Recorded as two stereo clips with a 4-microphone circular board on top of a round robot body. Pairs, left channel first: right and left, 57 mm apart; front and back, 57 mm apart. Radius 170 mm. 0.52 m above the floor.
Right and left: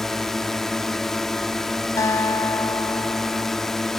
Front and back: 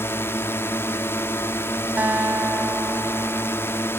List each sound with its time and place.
0.0 s a drone: 10° right
2.0 s a guitar: 115° right